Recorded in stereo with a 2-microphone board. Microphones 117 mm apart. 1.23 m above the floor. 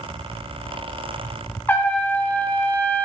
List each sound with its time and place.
1.7 s a trumpet: 15° left (ahead or behind), 1.5 m